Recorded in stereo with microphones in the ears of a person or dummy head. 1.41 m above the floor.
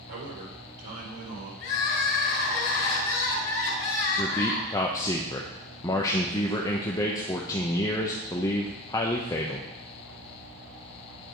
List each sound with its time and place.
0.1 s a man speaking: 90° right, 4.5 m
1.6 s crying: 50° left (ahead or behind), 3 m
4.2 s a man speaking: 20° left (ahead or behind), 0.8 m